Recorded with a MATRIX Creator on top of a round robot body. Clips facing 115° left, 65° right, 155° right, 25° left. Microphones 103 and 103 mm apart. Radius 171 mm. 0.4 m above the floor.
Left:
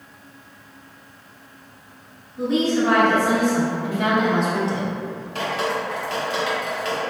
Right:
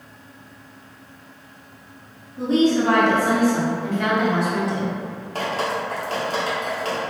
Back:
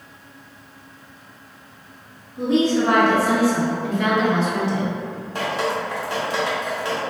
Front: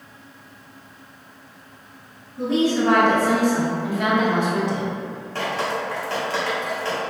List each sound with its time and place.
2.4 s a woman speaking: 100° right, 1.7 m; by 4.9 s 80° left, 1.6 m
5.3 s dripping: 90° right, 1.6 m